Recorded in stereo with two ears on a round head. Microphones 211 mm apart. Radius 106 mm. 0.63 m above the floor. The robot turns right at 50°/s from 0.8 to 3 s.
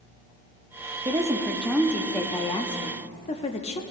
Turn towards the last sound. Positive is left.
turn(degrees=25)  # may be behind; listen again after turning